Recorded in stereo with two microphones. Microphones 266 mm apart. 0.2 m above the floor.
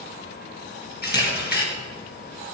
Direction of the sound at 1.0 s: 35° left (ahead or behind).